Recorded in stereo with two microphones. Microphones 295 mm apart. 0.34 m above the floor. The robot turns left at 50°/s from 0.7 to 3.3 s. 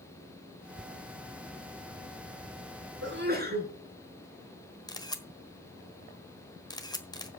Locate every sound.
3.0 s a sneeze: 45° right (ahead or behind), 4.5 m; by 3.7 s 30° right (ahead or behind), 4.5 m
4.9 s a camera shutter: 15° left (ahead or behind), 1.4 m